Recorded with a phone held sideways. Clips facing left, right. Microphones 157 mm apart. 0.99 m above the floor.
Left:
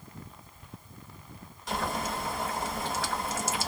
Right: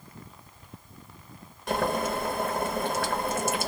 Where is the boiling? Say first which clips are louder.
Right 6 dB; 60° right (ahead or behind), 1.8 m.